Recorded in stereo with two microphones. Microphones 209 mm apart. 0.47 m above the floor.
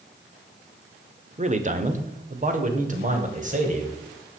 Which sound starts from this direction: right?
A man speaking, at 1.4 s.